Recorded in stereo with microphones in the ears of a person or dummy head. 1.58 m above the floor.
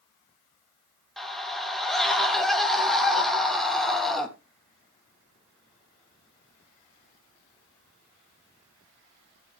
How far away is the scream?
About 3 m.